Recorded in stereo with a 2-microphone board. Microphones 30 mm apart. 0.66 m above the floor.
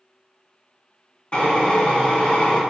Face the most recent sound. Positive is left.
turn(degrees=40)  # may be behind; listen again after turning